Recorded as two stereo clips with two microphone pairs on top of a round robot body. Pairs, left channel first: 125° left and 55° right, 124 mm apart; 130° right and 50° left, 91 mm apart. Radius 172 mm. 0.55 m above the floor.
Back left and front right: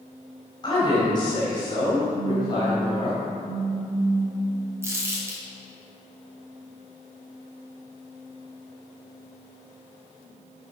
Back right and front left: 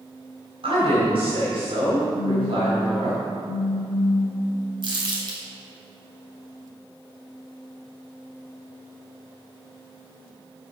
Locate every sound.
0.6 s a woman speaking: 70° left, 4 m
2.1 s a phone buzzing: 80° left, 1.3 m
4.8 s crumpling: 15° left, 3.5 m